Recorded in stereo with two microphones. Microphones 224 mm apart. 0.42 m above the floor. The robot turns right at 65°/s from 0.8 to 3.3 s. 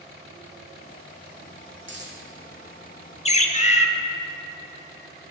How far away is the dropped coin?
About 1.8 m.